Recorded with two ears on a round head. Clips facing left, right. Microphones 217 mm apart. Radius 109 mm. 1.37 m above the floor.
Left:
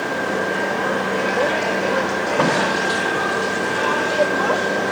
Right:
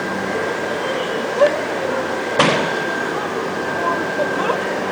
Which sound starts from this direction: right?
A shout, at 1.4 s.